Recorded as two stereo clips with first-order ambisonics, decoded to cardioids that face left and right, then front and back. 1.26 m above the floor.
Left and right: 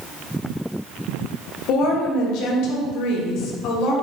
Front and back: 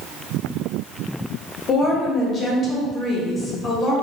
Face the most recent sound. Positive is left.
turn(degrees=60)